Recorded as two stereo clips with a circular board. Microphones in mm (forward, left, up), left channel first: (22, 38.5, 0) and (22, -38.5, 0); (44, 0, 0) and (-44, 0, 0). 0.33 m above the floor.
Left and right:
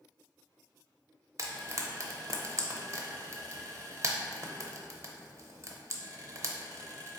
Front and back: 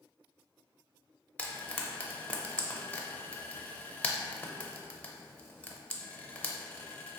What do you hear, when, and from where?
1.4 s frying: 65° right, 0.5 m